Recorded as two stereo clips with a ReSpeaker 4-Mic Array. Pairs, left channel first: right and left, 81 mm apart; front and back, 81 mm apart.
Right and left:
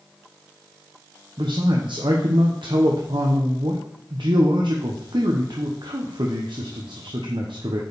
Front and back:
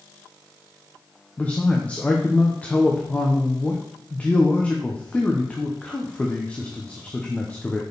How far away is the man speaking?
About 1.0 m.